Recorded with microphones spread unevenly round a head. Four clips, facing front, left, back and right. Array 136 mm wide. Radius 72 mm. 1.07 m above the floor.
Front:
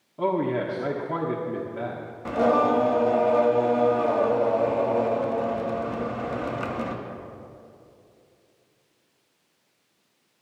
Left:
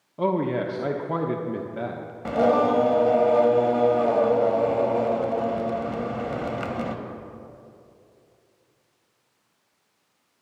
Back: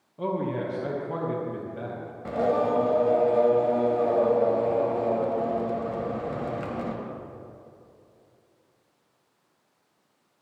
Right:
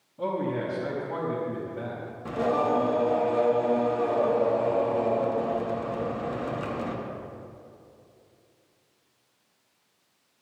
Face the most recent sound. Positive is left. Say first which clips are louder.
# left 5 dB, front 3 dB
turn(degrees=90)